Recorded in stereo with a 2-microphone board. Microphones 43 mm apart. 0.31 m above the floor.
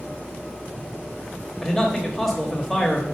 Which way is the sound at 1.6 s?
5° left (ahead or behind).